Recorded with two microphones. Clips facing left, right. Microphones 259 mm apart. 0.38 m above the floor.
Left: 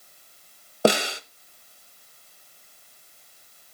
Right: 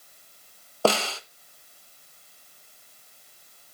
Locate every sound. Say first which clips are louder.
0.8 s a snare drum: left 3 dB; 15° left (ahead or behind), 0.6 m